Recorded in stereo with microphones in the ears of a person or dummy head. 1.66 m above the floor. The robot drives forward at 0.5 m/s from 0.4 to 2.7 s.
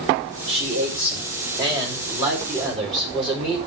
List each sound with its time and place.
0.5 s a man speaking: 25° right (ahead or behind), 4.5 m; by 3.6 s 20° right (ahead or behind), 5.5 m